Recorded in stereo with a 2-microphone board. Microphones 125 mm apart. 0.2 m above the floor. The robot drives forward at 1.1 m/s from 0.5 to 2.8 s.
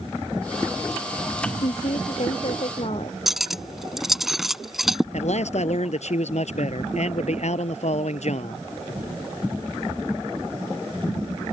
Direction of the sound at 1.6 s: 50° left (ahead or behind).